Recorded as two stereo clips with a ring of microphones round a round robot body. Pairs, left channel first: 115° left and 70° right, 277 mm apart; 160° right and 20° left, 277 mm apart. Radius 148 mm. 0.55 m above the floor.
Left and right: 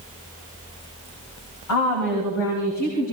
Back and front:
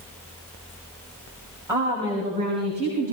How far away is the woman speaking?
About 4 m.